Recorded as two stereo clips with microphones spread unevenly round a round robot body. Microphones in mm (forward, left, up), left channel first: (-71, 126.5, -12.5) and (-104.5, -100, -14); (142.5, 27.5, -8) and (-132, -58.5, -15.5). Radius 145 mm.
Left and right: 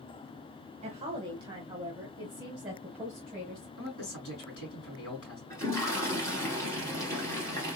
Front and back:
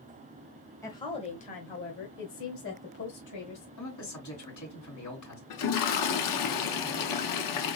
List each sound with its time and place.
0.8 s a woman speaking: 55° right, 1.0 m; by 3.7 s 5° right, 2.0 m
3.8 s a man speaking: 45° left, 3.5 m
5.5 s a toilet flushing: straight ahead, 1.0 m